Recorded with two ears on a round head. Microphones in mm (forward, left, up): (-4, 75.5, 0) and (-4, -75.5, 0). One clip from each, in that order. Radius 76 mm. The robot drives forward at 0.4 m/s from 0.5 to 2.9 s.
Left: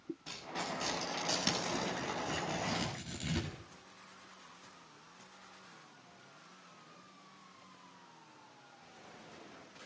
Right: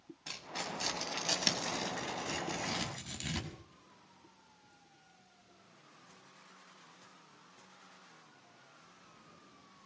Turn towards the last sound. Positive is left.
turn(degrees=-40)  # may be behind; listen again after turning